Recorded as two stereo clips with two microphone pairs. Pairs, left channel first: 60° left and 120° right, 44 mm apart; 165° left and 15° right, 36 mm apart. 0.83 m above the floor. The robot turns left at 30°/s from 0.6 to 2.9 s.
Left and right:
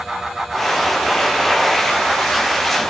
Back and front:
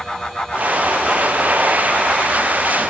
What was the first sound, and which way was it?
Only background noise.